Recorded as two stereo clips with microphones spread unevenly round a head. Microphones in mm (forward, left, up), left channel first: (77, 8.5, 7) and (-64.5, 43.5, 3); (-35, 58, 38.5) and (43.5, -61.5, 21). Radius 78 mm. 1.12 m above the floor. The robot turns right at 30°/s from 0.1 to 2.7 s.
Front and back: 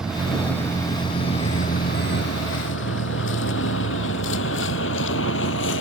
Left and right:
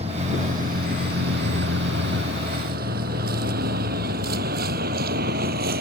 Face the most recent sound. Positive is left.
turn(degrees=-30)